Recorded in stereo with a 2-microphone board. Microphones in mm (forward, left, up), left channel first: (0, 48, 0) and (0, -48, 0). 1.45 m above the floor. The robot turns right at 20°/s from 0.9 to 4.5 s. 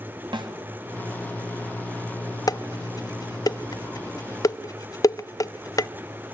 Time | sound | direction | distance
0.3 | a snare drum | 55° right (ahead or behind) | 3 m
2.5 | dishes clattering | 40° left (ahead or behind) | 0.6 m